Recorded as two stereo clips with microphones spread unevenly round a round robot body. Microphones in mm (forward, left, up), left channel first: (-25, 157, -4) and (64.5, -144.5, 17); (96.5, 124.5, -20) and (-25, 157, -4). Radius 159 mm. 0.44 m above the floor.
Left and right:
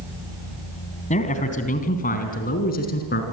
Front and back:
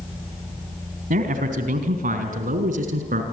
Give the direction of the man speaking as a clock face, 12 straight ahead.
6 o'clock.